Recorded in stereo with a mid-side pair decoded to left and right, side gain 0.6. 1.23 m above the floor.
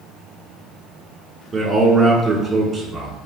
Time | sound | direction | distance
1.5 | a man speaking | 20° right | 1.4 m